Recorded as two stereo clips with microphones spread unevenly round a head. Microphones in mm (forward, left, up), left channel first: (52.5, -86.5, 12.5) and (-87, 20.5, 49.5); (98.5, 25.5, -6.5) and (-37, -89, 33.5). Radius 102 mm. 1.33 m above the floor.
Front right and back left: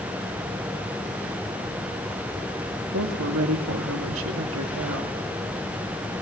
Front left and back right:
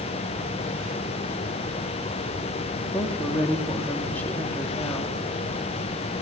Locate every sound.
2.9 s a woman speaking: 125° left, 2.5 m